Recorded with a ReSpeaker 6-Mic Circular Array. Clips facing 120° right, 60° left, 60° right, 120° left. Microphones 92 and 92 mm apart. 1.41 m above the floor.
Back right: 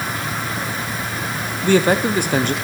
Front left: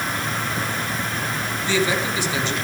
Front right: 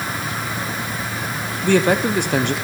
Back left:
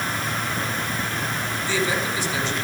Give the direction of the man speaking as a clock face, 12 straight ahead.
3 o'clock.